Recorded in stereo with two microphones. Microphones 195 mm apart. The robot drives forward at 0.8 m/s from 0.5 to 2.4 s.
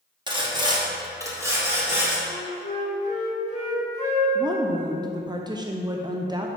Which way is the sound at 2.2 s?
30° left (ahead or behind).